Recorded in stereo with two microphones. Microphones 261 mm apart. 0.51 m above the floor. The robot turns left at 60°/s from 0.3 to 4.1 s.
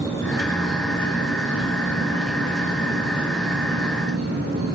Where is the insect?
170° left, 6.5 m; by 4.8 s 60° right, 6.5 m.